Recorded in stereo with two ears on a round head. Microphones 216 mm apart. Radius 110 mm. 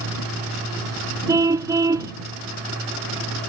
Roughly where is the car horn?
Centre.